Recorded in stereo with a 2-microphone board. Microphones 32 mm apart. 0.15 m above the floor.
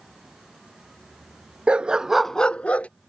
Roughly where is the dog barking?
Right.